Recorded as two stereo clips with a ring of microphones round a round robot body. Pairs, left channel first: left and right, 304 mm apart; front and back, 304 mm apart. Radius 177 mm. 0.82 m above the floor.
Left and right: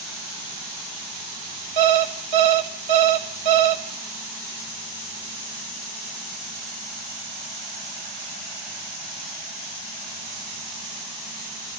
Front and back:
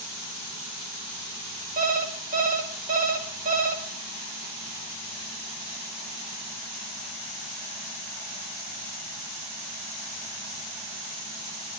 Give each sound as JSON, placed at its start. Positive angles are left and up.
{"t": 1.8, "sound": "an alarm clock", "azimuth_deg": -115, "distance_m": 2.0}